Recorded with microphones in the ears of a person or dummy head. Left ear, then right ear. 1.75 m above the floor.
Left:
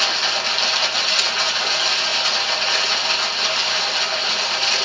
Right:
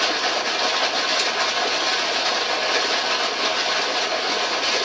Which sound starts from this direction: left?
Running water, at 0.0 s.